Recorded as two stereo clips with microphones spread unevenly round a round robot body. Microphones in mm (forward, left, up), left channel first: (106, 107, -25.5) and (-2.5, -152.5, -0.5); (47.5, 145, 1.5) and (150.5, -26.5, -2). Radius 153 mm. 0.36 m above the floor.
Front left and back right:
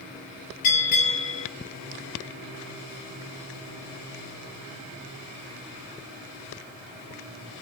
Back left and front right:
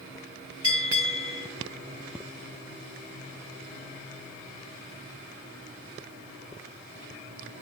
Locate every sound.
0.6 s a bell: 60° left, 4.5 m